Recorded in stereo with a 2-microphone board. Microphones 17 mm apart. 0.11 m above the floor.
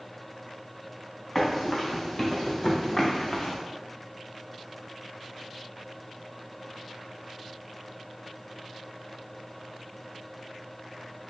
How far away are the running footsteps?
About 1.6 m.